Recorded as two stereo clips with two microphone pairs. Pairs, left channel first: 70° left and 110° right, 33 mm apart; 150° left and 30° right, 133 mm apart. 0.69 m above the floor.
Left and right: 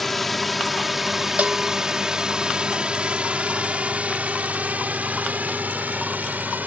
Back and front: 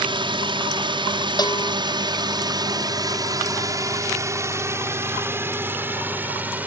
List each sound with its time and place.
0.0 s a drone: 10° right; by 6.7 s 110° right
1.4 s a bell: 150° right